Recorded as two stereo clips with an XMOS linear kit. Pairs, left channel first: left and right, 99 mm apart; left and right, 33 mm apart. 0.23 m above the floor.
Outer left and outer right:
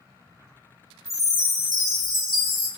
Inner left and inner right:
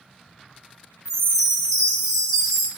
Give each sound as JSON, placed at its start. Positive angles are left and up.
{"t": 1.1, "sound": "a chime", "side_deg": 0, "distance_m": 1.2}